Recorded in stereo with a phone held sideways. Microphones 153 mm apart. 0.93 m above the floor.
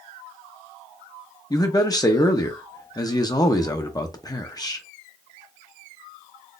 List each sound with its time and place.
1.5 s a man speaking: 25° left (ahead or behind), 0.6 m